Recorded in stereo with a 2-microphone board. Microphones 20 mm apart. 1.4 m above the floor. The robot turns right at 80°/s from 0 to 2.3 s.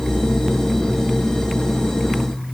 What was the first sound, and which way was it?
Only background noise.